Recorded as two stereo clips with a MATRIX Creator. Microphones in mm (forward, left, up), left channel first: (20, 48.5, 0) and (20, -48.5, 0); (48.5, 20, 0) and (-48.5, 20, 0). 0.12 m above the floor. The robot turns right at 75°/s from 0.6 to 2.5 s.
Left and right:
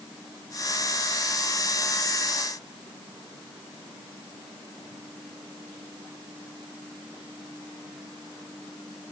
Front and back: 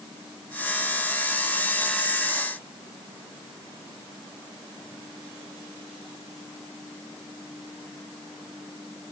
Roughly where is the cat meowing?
No cat meowing in this recording.